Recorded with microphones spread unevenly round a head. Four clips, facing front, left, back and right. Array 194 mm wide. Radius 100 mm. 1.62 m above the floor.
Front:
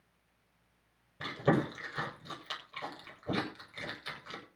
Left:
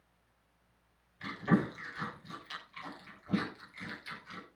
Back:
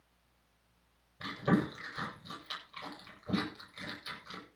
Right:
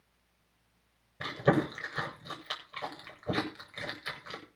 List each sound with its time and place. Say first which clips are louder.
1.2 s chewing: right 3 dB, front 1 dB; 60° right, 8 m